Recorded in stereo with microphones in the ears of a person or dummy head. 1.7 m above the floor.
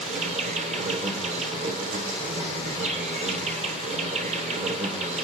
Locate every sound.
0.0 s an insect: 35° right (ahead or behind), 1.0 m